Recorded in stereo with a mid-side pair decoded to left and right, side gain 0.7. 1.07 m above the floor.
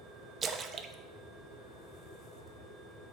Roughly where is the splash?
Ahead right.